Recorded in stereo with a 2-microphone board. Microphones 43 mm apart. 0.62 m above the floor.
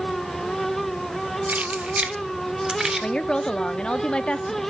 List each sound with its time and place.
1.5 s keys jangling: 40° right (ahead or behind), 1.1 m; by 3.1 s 15° right (ahead or behind), 1.5 m
3.0 s a woman speaking: 20° left (ahead or behind), 0.7 m